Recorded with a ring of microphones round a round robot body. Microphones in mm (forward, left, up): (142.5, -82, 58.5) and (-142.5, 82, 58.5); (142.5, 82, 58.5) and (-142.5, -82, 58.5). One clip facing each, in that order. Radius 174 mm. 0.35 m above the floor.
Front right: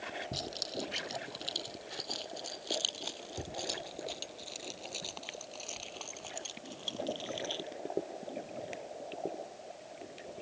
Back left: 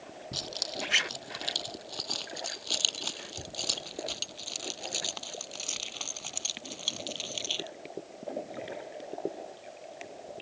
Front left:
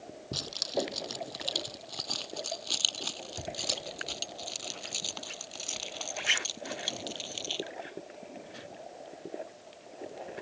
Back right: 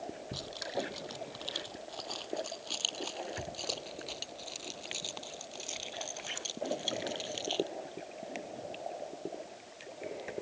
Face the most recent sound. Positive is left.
turn(degrees=105)